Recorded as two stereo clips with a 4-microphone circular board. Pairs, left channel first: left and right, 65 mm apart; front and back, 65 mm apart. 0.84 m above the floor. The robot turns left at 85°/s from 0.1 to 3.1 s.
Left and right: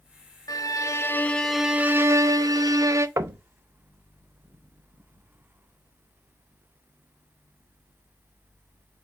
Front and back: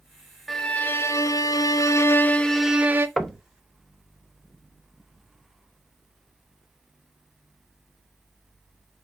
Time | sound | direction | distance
0.5 | a violin | 90° left | 0.5 m
3.2 | knocking | 80° right | 0.5 m